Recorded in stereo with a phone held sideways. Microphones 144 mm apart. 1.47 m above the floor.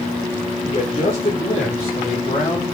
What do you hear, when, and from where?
0.6 s a man speaking: 45° left (ahead or behind), 5 m; by 2.6 s 55° left (ahead or behind), 4 m